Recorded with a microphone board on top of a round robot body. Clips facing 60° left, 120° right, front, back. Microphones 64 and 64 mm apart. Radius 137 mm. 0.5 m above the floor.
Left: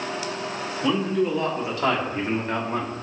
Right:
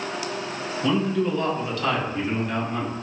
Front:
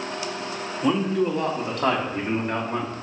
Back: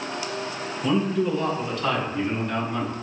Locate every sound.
0.8 s a man speaking: 15° right, 1.8 m; by 2.9 s 40° left, 1.4 m